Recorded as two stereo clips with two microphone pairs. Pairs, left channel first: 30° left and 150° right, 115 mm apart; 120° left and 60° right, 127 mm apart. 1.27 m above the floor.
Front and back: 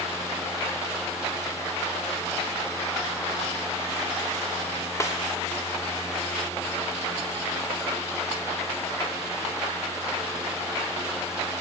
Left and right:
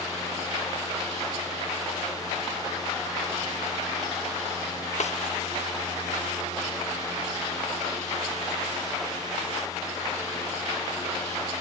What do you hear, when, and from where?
5.0 s a snare drum: 95° left, 0.9 m